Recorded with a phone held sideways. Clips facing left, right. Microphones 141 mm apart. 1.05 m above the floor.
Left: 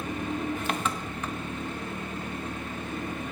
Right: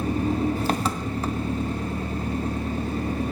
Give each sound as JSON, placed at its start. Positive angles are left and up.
{"t": 0.0, "sound": "an engine running", "side_deg": -35, "distance_m": 0.8}